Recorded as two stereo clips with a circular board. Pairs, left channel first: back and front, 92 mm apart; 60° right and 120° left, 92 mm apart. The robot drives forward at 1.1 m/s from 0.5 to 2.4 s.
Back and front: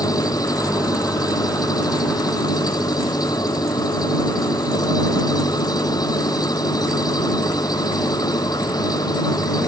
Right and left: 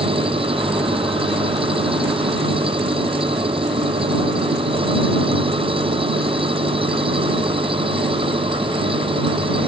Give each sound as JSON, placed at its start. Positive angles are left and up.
{"t": 0.0, "sound": "an engine running", "azimuth_deg": 130}